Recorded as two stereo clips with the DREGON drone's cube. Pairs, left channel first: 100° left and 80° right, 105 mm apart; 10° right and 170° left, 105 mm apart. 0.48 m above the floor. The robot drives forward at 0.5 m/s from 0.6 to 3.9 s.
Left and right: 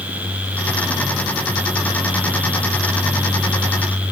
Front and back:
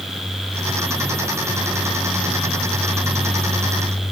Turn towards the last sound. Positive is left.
No sound to turn to.